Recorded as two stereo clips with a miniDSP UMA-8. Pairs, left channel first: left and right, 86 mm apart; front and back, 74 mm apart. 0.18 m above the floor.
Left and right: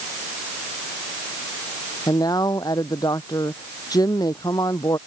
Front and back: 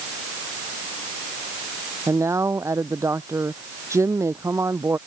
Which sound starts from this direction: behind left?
A man speaking, at 2.1 s.